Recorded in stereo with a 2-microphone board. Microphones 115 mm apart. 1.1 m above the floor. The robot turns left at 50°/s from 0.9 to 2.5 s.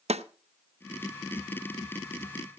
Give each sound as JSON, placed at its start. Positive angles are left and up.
{"t": 0.1, "sound": "a snare drum", "side_deg": -65, "distance_m": 0.7}